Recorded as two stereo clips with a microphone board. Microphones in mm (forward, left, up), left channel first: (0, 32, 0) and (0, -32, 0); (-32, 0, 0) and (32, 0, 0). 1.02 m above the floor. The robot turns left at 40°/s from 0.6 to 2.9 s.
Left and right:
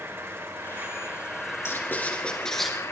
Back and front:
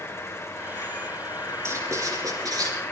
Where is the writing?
45° left, 4 m; by 2.7 s straight ahead, 4 m.